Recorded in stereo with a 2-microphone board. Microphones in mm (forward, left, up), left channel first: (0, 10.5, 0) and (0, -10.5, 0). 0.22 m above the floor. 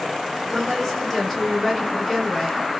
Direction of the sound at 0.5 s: 5° left (ahead or behind).